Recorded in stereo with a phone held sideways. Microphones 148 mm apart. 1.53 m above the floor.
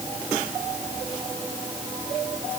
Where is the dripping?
I don't hear dripping.